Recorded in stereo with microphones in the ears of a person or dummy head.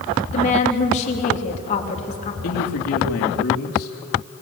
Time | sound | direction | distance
0.3 | a woman speaking | 40° left (ahead or behind) | 3 m
2.4 | a man speaking | 75° left (ahead or behind) | 3 m